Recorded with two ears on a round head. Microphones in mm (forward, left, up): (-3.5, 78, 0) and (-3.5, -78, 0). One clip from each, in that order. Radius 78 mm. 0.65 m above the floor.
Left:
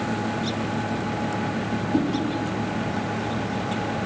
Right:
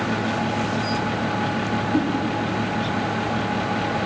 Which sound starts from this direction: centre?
A whoosh, at 1.9 s.